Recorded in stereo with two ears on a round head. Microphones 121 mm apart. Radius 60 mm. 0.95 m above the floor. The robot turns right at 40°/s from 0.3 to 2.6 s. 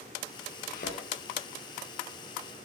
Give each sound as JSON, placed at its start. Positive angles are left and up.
{"t": 0.7, "sound": "a thud", "side_deg": 80, "distance_m": 6.5}